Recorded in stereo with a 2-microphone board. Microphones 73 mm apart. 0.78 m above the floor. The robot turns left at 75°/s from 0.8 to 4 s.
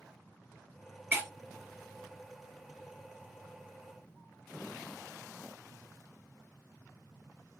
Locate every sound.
1.1 s breaking glass: 25° right (ahead or behind), 1.3 m; by 1.3 s 40° right (ahead or behind), 1.3 m